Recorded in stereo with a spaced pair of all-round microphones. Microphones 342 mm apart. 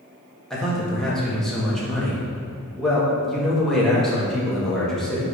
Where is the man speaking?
Centre (ahead or behind), 1.6 m.